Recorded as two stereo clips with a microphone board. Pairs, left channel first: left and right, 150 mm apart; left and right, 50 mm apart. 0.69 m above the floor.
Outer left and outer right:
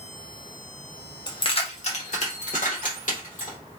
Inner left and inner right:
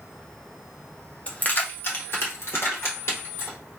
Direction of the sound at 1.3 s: 30° left (ahead or behind).